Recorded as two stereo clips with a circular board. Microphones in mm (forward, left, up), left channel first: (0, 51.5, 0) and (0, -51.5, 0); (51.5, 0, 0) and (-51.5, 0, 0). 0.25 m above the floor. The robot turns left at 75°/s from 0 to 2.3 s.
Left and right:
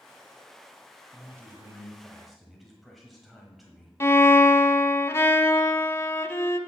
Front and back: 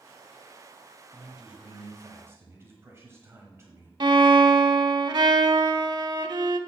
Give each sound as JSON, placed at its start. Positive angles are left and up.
{"t": 1.1, "sound": "a man speaking", "azimuth_deg": -90, "distance_m": 1.3}
{"t": 4.0, "sound": "a violin", "azimuth_deg": 150, "distance_m": 0.6}